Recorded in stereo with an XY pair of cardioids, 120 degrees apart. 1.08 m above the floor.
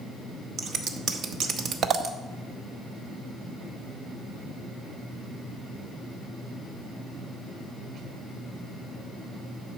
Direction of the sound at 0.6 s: 55° right.